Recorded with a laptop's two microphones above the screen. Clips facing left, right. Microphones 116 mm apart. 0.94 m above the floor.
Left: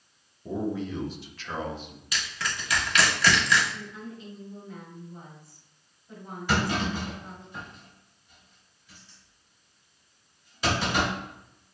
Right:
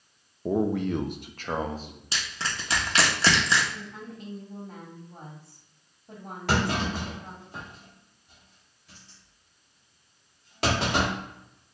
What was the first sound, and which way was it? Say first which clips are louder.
A man speaking: right 5 dB; 55° right (ahead or behind).